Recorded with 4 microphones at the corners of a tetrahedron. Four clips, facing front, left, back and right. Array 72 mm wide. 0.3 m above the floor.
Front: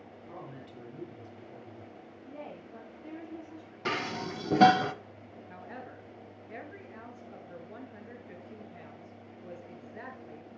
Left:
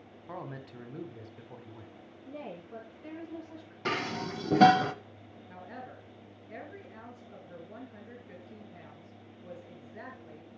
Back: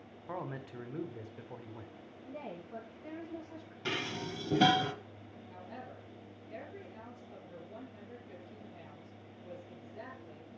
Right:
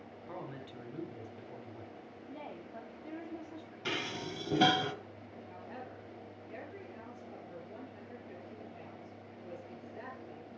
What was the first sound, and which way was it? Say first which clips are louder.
A man speaking: left 3 dB, back 5 dB; 155° left.